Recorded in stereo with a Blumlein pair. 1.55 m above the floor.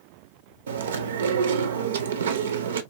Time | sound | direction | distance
0.7 | chewing | 65° right | 0.6 m